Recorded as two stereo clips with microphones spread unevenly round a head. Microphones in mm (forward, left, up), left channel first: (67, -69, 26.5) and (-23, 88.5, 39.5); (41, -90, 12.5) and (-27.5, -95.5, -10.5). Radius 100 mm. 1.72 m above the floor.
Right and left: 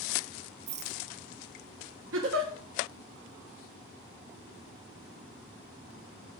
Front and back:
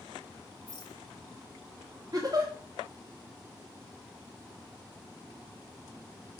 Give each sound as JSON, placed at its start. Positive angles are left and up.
{"t": 0.7, "sound": "a rattle", "azimuth_deg": 65, "distance_m": 0.5}
{"t": 2.1, "sound": "a giggle", "azimuth_deg": 110, "distance_m": 1.4}